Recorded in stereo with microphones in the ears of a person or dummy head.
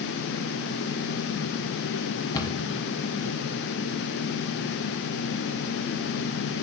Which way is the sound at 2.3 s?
15° left (ahead or behind).